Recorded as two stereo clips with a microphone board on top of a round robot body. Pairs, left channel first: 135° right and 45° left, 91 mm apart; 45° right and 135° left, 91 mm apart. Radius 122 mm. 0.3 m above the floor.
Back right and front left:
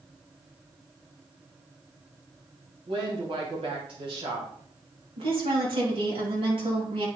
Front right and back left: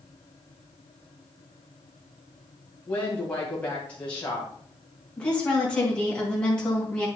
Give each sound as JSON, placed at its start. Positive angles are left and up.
{"t": 2.9, "sound": "a woman speaking", "azimuth_deg": 30, "distance_m": 2.5}
{"t": 5.2, "sound": "a woman speaking", "azimuth_deg": 35, "distance_m": 4.0}